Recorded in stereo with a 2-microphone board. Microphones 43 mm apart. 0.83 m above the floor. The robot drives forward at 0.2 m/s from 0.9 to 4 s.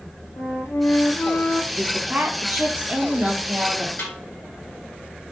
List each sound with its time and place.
0.4 s a flute: 75° left (ahead or behind), 0.7 m; by 1.6 s 65° left (ahead or behind), 0.8 m
1.7 s a woman speaking: 35° right (ahead or behind), 1.1 m; by 3.9 s 30° right (ahead or behind), 1.2 m
4.0 s a snare drum: 55° left (ahead or behind), 1.9 m